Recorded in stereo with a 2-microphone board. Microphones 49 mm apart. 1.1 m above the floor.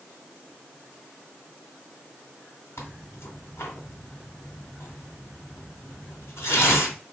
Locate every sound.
2.8 s tearing paper: 65° left (ahead or behind), 1.6 m